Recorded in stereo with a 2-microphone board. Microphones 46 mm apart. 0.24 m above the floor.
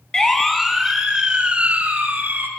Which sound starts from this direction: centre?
A siren, at 0.1 s.